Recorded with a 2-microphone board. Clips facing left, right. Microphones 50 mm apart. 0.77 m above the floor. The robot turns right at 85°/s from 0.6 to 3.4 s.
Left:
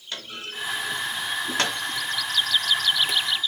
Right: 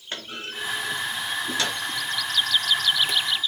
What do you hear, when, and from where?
0.1 s a clunk: 35° right (ahead or behind), 1.1 m; by 1.8 s 55° left (ahead or behind), 1.1 m